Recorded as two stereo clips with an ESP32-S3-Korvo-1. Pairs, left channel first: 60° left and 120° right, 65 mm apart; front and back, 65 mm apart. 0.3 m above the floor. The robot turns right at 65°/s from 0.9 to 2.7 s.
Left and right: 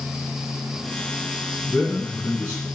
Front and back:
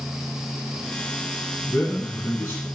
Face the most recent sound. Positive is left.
turn(degrees=55)